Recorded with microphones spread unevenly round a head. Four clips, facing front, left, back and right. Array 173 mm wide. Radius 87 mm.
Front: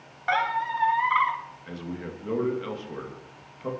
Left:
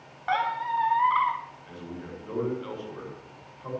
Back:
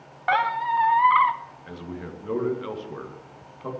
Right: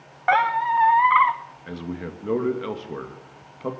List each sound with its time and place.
0.3 s a squeak: 105° right, 0.8 m
1.7 s a man speaking: 85° right, 2.5 m